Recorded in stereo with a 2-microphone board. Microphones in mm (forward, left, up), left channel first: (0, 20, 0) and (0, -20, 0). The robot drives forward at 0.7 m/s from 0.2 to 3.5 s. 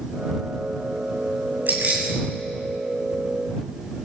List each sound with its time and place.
1.7 s keys jangling: 60° right (ahead or behind), 7.5 m; by 2.1 s 55° right (ahead or behind), 7.5 m